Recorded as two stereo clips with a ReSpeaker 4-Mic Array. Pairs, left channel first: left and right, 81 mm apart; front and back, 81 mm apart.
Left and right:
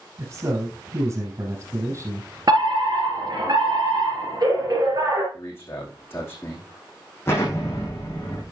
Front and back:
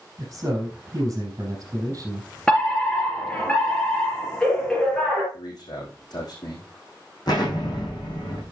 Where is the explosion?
30° left, 5 m.